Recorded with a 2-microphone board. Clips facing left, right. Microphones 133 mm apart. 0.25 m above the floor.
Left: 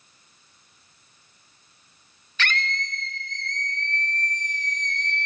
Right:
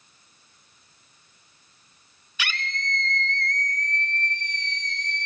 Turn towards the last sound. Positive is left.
turn(degrees=55)  # may be behind; listen again after turning